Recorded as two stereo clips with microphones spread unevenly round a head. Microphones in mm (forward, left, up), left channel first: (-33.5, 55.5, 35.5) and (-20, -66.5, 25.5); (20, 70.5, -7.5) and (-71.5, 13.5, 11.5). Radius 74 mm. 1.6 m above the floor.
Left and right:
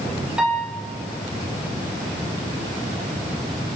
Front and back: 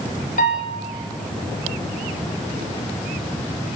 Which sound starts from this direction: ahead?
A piano, at 0.4 s.